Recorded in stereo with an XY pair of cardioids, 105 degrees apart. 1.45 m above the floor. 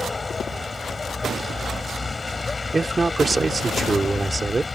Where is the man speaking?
25° right.